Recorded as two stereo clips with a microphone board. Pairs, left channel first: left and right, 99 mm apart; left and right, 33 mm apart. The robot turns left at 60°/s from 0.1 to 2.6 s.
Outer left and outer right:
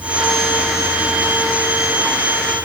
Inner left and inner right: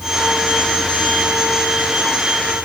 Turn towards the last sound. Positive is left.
No sound to turn to.